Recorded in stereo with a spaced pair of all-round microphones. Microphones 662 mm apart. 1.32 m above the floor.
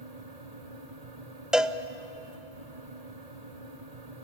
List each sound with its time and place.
0.0 s a fan: 70° right (ahead or behind), 1.8 m
1.5 s a cowbell: centre (ahead or behind), 0.5 m